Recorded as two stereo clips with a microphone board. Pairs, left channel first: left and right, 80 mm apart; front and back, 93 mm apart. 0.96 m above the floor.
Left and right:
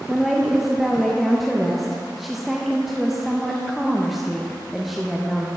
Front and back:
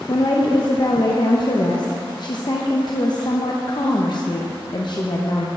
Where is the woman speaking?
5° right, 0.8 m.